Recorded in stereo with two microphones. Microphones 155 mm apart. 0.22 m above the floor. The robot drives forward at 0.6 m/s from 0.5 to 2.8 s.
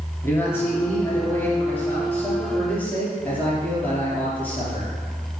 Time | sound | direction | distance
0.2 | a man speaking | 15° left (ahead or behind) | 2.5 m